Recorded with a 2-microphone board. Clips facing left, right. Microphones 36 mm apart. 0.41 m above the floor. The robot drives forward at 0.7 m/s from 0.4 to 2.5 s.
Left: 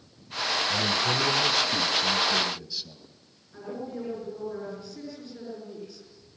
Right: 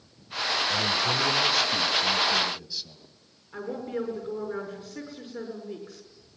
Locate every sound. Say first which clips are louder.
0.7 s a man speaking: even; centre (ahead or behind), 1.1 m
3.5 s a woman speaking: right 4 dB; 75° right (ahead or behind), 6 m